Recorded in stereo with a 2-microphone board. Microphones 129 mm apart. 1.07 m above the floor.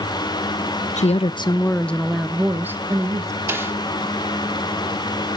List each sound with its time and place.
1.0 s a woman speaking: 65° left (ahead or behind), 0.5 m; by 3.4 s 25° right (ahead or behind), 1.4 m
3.5 s a snare drum: 20° right (ahead or behind), 1.0 m